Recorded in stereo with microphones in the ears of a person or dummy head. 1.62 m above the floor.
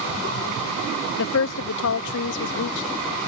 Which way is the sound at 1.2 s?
75° left (ahead or behind).